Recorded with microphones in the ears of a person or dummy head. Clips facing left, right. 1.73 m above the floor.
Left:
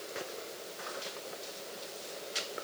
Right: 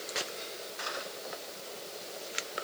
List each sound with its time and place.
Only background noise.